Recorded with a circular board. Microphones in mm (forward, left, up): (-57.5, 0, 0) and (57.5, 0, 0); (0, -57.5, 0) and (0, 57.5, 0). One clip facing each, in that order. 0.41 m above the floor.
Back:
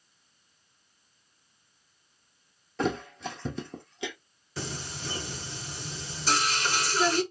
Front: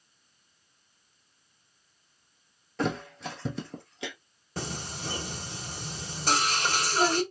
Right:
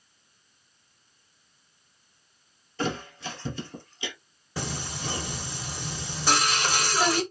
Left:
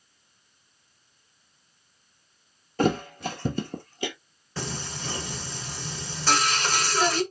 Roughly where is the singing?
Ahead.